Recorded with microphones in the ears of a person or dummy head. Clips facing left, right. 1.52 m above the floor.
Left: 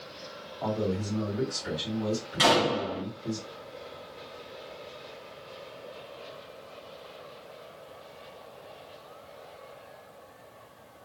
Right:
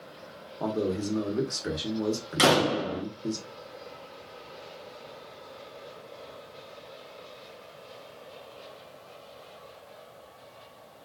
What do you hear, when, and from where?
0.6 s a man speaking: 65° right (ahead or behind), 1.1 m
2.4 s a door slam: 55° right (ahead or behind), 0.8 m